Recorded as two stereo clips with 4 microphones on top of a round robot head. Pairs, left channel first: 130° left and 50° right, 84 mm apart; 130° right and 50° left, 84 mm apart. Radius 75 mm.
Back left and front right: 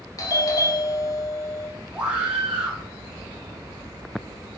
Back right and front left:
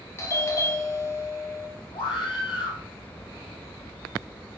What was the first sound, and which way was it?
A doorbell, 175° left.